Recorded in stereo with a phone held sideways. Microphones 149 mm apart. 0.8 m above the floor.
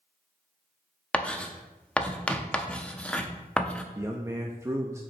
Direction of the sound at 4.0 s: 20° right (ahead or behind).